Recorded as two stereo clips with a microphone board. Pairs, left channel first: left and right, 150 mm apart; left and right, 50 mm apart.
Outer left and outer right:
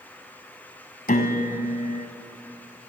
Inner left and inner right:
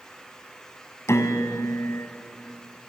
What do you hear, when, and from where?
1.1 s a piano: 70° left (ahead or behind), 1.6 m